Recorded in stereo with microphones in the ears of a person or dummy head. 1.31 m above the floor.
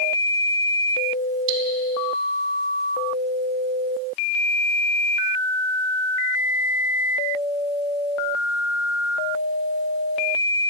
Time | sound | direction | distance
1.5 | cutlery clinking | 65° right (ahead or behind) | 1.3 m